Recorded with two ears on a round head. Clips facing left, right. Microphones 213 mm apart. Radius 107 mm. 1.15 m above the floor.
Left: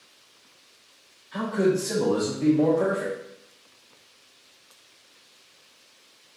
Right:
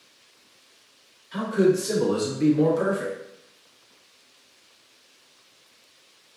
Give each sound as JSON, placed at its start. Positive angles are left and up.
{"t": 1.3, "sound": "a man speaking", "side_deg": -70, "distance_m": 1.7}